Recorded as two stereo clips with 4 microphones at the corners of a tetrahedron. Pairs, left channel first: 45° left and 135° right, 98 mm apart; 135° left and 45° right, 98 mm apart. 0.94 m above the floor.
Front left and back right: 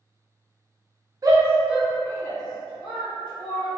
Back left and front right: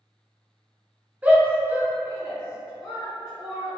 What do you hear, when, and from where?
1.2 s a shout: 110° right, 0.6 m; by 3.8 s 35° left, 1.3 m